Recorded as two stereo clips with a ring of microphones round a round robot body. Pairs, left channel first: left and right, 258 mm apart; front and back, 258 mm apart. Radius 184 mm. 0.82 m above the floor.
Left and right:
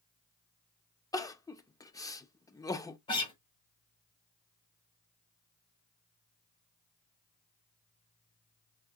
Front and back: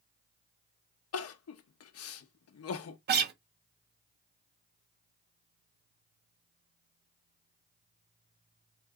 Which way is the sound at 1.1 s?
15° left.